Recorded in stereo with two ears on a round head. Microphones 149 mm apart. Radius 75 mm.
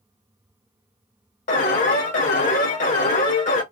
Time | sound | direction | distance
1.5 | an alarm | 45° left (ahead or behind) | 1.1 m